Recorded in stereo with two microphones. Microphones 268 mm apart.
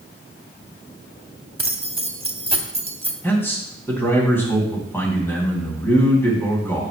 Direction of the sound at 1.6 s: 25° right (ahead or behind).